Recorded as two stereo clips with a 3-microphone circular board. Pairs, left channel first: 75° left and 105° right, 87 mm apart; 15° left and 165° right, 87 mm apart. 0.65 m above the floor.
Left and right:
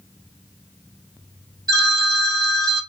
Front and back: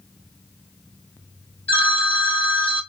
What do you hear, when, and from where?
1.7 s a phone ringing: 60° right, 2 m